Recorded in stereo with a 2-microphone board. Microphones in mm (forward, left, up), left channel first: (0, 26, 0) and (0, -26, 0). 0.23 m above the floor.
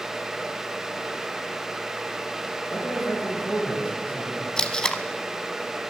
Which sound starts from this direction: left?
A man speaking, at 2.7 s.